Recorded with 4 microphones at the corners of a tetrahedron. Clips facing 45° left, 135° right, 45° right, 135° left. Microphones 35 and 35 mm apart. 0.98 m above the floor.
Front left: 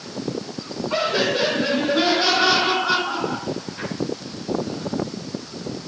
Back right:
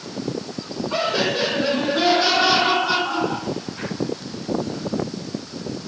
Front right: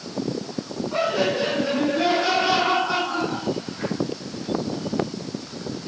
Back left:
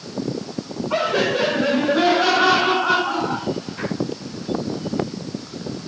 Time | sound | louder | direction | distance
0.9 | laughter | front left 1 dB, back left 3 dB | 115° left | 8.5 m